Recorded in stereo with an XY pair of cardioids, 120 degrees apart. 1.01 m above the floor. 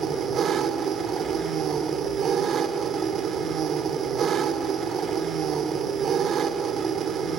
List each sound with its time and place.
0.0 s an engine running: 45° right, 1.6 m